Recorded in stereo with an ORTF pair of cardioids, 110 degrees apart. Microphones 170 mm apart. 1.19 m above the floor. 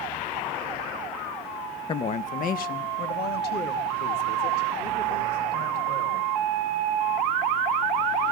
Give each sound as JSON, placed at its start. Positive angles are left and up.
{"t": 1.9, "sound": "a woman speaking", "azimuth_deg": 30, "distance_m": 0.6}